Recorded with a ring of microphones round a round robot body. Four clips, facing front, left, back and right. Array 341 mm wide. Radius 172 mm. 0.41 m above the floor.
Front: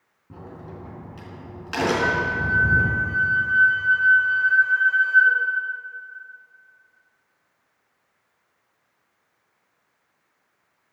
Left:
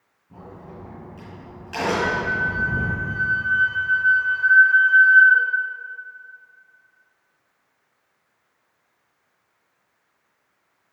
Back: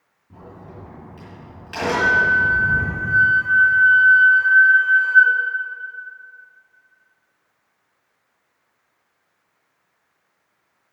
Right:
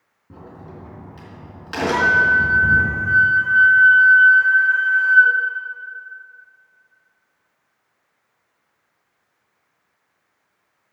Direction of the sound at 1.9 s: 115° right.